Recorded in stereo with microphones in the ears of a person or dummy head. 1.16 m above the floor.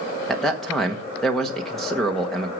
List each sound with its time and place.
0.3 s a man speaking: 5° left (ahead or behind), 1.2 m